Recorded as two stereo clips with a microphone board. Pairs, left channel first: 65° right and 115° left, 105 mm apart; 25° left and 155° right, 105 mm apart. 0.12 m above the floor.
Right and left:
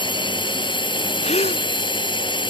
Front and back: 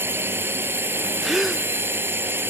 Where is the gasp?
70° right.